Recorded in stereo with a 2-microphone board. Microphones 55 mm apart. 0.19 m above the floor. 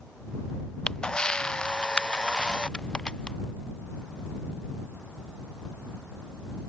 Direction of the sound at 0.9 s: 15° left (ahead or behind).